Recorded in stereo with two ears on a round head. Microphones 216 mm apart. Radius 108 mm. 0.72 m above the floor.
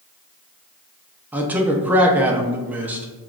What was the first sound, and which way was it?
A man speaking, 5° right (ahead or behind).